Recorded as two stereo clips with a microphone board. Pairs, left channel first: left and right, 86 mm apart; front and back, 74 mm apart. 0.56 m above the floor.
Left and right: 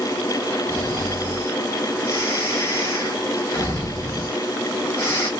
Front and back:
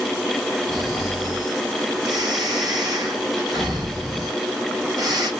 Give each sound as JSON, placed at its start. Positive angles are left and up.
{"t": 0.7, "sound": "snoring", "azimuth_deg": 145, "distance_m": 4.0}